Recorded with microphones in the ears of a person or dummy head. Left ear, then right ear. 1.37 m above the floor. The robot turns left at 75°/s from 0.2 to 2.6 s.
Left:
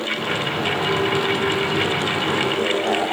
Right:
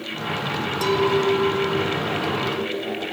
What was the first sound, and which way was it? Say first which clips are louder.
A clink: right 3 dB; 95° right.